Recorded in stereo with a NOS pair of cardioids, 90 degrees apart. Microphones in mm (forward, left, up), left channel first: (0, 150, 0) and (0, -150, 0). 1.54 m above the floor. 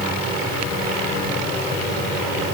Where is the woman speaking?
I don't hear a woman speaking.